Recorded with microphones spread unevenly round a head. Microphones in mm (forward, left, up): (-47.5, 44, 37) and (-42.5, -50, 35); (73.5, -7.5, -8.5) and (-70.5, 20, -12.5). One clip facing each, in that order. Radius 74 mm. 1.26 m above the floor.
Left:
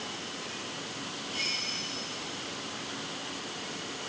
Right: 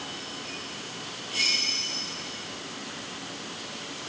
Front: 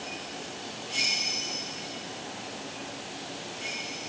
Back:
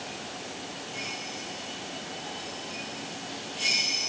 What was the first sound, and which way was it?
Only background noise.